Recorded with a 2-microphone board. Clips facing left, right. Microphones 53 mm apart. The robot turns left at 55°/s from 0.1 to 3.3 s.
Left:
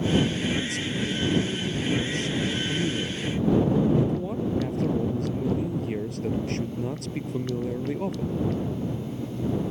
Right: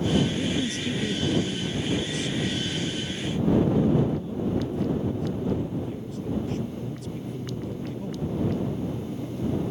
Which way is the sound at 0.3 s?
120° right.